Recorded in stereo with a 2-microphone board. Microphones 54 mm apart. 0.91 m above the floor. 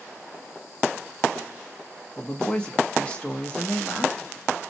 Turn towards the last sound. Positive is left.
turn(degrees=20)  # may be behind; listen again after turning